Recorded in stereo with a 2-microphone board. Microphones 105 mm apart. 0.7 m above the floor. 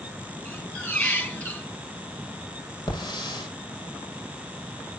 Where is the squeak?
20° left (ahead or behind), 4 m.